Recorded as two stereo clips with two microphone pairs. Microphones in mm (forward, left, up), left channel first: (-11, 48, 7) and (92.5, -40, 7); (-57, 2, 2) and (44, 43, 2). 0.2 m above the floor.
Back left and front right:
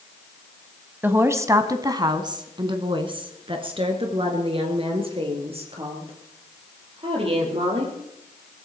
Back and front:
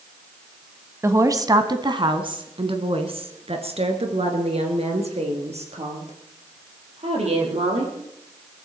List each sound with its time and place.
1.0 s a woman speaking: 10° left, 1.2 m; by 8.0 s 5° left, 5.5 m